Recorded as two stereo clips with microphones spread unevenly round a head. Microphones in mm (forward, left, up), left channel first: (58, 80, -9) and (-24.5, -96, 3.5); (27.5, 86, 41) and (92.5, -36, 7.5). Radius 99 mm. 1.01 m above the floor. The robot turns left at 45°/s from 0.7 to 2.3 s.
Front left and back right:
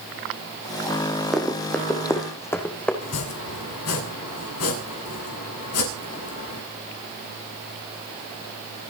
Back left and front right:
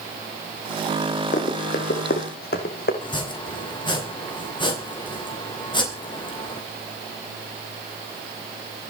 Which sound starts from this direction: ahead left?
Chopping, at 3.0 s.